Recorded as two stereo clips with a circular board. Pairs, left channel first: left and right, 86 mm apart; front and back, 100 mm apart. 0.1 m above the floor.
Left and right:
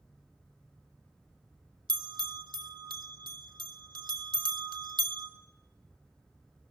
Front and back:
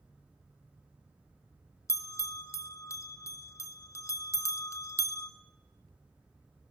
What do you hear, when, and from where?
1.9 s a bell: 60° right, 0.8 m